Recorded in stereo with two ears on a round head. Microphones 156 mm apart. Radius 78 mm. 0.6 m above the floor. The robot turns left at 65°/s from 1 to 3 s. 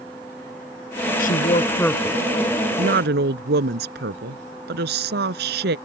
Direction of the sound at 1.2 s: 55° left.